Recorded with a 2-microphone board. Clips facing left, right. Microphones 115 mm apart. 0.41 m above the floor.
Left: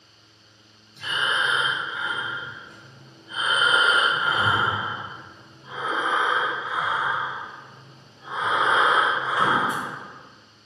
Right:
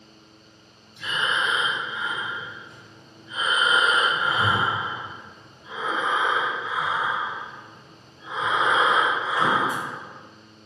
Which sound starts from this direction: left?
Breathing, at 1.0 s.